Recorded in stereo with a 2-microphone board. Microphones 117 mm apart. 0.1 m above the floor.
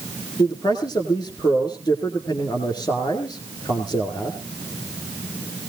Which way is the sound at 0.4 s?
30° left (ahead or behind).